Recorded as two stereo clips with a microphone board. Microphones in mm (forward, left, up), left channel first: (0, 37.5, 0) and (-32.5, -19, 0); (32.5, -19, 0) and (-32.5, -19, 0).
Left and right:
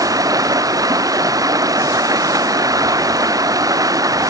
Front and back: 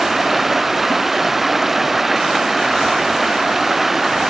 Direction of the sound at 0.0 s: 95° right.